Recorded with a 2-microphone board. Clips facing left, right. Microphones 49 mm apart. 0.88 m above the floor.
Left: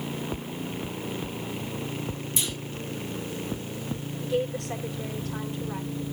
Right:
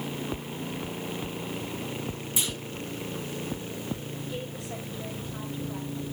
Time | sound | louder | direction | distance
2.4 | a clunk | right 1 dB | 15° right (ahead or behind) | 4 m
4.2 | a woman speaking | left 8 dB | 75° left (ahead or behind) | 3.5 m